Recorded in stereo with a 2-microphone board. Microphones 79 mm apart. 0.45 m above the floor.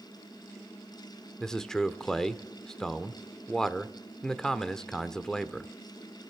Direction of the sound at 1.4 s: 5° left (ahead or behind).